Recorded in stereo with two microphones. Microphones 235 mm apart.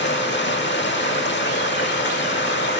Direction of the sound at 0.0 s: 50° left (ahead or behind).